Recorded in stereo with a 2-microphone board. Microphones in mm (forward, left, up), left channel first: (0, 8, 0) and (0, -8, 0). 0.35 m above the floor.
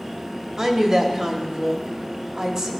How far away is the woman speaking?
About 1.2 m.